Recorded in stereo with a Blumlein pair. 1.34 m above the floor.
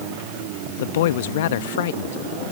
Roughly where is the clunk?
No clunk in this recording.